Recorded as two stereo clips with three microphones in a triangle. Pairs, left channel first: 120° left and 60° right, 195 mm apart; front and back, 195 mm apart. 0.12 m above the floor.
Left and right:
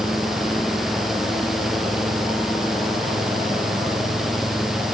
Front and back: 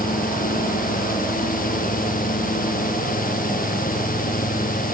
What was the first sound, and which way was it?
Only background noise.